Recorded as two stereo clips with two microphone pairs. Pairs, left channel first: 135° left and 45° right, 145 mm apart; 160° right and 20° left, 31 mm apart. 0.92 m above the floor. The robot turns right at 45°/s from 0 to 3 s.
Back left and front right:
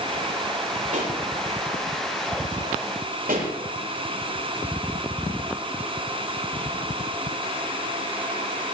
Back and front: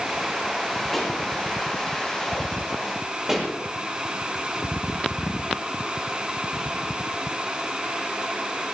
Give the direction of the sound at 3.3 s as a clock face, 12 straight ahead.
2 o'clock.